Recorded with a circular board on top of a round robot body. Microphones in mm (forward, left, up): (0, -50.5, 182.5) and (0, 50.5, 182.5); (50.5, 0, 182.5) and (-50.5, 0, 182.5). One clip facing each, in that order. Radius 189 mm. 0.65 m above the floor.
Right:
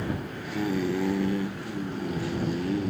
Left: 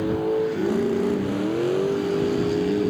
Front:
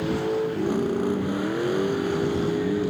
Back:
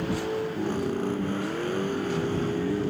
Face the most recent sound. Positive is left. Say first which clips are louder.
# left 11 dB, front 4 dB
turn(degrees=80)